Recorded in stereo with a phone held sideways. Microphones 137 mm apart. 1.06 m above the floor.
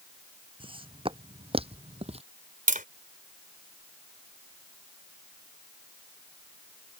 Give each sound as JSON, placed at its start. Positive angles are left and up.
{"t": 0.6, "sound": "footsteps", "side_deg": -40}
{"t": 2.7, "sound": "tapping", "side_deg": -80}